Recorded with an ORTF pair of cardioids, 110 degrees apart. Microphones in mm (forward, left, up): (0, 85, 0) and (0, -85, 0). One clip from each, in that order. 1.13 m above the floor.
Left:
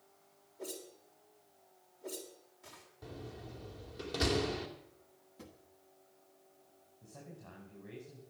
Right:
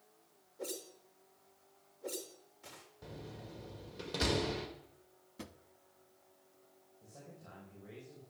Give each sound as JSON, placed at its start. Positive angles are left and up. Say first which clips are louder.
{"t": 0.6, "sound": "a whoosh", "louder": "right 2 dB", "azimuth_deg": -15, "distance_m": 3.0}
{"t": 3.0, "sound": "a door slam", "louder": "left 2 dB", "azimuth_deg": -5, "distance_m": 2.5}
{"t": 5.4, "sound": "a drawer", "louder": "right 4 dB", "azimuth_deg": -45, "distance_m": 1.1}
{"t": 7.0, "sound": "a man speaking", "louder": "left 2 dB", "azimuth_deg": 20, "distance_m": 5.5}